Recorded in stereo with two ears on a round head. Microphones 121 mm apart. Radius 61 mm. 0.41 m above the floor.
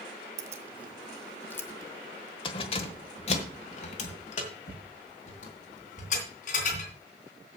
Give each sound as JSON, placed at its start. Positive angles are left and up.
{"t": 0.4, "sound": "keys jangling", "side_deg": -25, "distance_m": 0.8}